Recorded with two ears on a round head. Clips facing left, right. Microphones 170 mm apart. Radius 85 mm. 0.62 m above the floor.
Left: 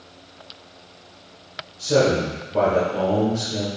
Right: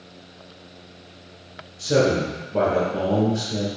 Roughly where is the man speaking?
Right.